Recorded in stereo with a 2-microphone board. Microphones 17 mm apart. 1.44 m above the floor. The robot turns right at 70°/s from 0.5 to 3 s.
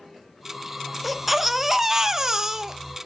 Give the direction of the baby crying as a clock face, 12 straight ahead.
6 o'clock.